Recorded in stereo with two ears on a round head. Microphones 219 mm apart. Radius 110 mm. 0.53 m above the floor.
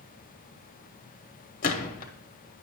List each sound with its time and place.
1.6 s a gunshot: 35° left (ahead or behind), 1.0 m